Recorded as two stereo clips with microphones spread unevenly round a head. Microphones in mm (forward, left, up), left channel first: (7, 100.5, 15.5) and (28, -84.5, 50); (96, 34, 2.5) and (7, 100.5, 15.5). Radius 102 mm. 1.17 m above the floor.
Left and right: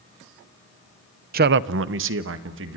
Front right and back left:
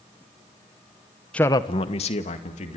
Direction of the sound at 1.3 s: 105° right.